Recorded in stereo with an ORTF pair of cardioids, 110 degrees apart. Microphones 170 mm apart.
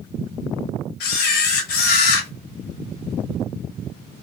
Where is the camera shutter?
70° left, 1.1 m.